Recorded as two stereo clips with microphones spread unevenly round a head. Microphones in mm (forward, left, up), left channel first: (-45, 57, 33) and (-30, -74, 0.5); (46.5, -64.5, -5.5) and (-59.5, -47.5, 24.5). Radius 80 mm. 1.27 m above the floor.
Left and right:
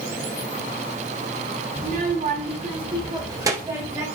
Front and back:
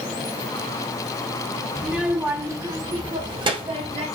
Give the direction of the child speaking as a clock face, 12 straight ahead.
4 o'clock.